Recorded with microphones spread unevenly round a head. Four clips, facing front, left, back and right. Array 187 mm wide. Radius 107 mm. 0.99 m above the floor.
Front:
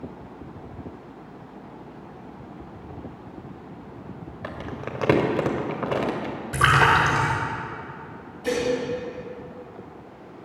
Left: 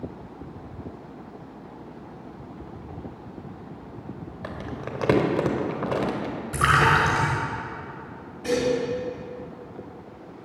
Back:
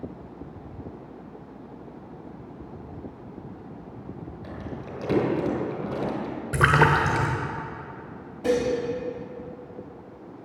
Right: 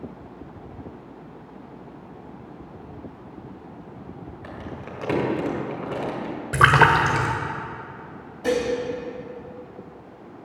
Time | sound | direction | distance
4.4 | crumpling | 25° left | 2 m
6.5 | a splash | 135° right | 1.0 m
8.4 | dishes clattering | 150° right | 3.5 m